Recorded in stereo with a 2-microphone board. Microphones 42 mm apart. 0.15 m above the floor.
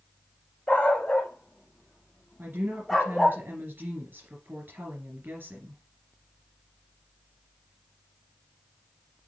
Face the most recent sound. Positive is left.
turn(degrees=-55)  # may be behind; listen again after turning